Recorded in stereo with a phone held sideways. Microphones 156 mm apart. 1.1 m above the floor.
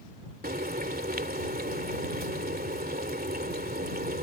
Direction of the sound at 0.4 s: 85° right.